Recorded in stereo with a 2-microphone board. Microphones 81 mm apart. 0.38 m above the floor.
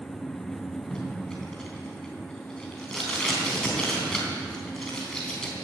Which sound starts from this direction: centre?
Tape being pulled, at 0.9 s.